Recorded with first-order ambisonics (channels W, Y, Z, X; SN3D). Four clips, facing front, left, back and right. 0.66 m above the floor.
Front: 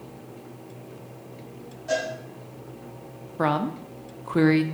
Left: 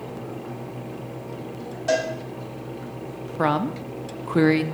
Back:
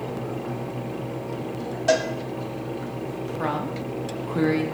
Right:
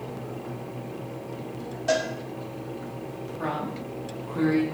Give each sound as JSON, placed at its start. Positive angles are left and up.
{"t": 1.9, "sound": "a cowbell", "azimuth_deg": 175, "distance_m": 1.7}
{"t": 3.4, "sound": "a woman speaking", "azimuth_deg": 65, "distance_m": 0.7}